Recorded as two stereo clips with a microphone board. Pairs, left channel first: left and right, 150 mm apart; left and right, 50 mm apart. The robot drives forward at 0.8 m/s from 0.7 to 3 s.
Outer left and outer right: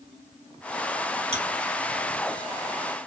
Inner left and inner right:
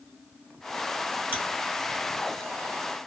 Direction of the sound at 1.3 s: 45° right (ahead or behind).